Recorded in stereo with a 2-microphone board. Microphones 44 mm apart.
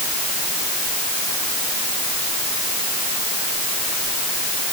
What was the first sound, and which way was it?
Only background noise.